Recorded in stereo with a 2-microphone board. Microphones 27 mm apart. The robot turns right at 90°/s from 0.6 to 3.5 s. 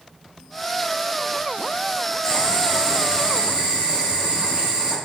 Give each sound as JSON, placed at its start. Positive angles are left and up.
{"t": 2.2, "sound": "boiling", "azimuth_deg": 125, "distance_m": 1.2}